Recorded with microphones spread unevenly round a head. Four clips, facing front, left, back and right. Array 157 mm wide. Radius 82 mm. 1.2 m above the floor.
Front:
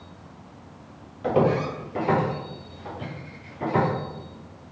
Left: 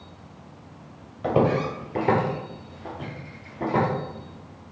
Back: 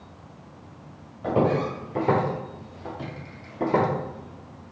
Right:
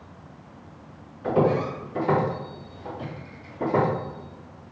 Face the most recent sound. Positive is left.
turn(degrees=-175)